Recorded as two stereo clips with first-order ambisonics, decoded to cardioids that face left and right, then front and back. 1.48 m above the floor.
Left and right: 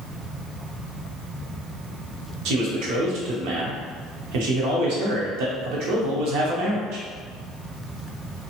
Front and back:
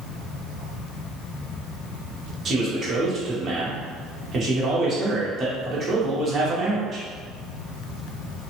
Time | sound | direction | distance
2.5 | a man speaking | 110° right | 0.9 m